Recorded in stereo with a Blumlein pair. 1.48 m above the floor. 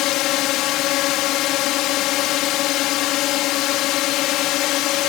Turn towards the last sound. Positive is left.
turn(degrees=40)